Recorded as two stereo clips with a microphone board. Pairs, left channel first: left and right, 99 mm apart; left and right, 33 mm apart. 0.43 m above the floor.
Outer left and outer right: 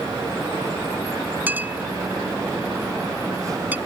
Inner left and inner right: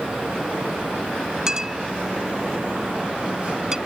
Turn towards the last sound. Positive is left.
turn(degrees=-20)  # may be behind; listen again after turning